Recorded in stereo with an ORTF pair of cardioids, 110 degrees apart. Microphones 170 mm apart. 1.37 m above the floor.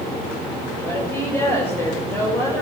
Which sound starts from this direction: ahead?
A woman speaking, at 0.8 s.